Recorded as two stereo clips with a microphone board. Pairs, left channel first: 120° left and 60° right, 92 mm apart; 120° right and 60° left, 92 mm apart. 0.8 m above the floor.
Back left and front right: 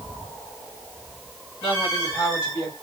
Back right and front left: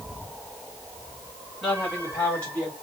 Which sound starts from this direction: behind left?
A woman speaking, at 1.6 s.